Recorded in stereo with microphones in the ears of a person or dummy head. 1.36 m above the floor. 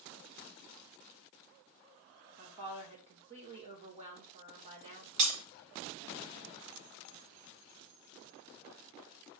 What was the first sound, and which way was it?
A woman speaking, 30° right (ahead or behind).